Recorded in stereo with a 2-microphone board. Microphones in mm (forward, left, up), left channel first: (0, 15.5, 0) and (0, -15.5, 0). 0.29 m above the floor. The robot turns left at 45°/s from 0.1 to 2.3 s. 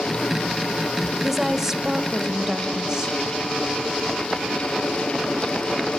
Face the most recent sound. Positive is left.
turn(degrees=-20)  # may be behind; listen again after turning